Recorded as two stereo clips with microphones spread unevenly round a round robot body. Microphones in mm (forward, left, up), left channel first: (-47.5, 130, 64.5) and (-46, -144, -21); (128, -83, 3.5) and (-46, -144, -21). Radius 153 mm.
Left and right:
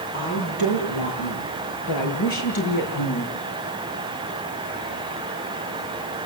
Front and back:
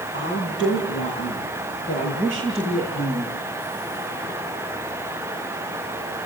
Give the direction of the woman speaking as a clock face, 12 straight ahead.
10 o'clock.